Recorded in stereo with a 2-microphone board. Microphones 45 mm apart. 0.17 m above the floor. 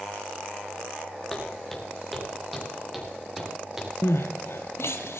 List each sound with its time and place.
1.3 s footsteps: 10° left (ahead or behind), 3.5 m; by 3.9 s 10° right (ahead or behind), 5 m
4.0 s crying: 80° left, 1.0 m